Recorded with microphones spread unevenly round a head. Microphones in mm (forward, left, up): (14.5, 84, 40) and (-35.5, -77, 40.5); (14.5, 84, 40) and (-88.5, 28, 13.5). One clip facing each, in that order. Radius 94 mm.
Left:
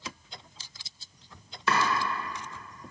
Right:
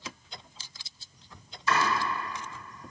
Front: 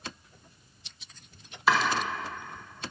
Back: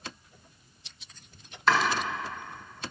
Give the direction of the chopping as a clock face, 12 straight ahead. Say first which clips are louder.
Even, even; 8 o'clock.